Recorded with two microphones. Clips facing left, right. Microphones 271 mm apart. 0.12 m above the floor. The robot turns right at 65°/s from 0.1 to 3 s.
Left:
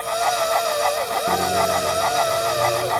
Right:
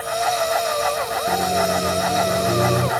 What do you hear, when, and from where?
1.3 s a microwave: 165° left, 3.5 m; by 2.9 s 90° right, 3.5 m